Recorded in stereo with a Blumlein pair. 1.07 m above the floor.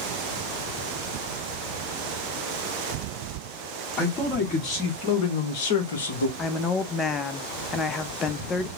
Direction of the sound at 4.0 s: 30° left.